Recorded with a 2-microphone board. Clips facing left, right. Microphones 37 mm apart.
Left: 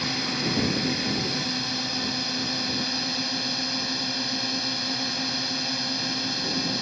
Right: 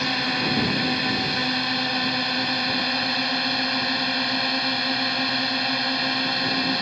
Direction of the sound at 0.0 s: 40° right (ahead or behind).